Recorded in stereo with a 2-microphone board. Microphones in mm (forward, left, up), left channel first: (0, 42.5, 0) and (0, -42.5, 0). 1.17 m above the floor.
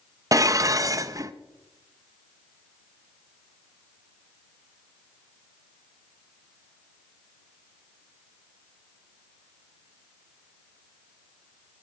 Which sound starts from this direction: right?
Dishes clattering, at 0.3 s.